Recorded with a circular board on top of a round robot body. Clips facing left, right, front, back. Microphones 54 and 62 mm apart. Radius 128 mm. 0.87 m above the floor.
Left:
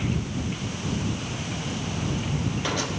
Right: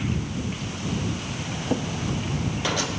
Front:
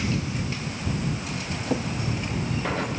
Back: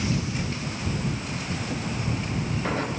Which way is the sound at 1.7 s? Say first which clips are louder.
Right 10 dB, front 9 dB; 50° right.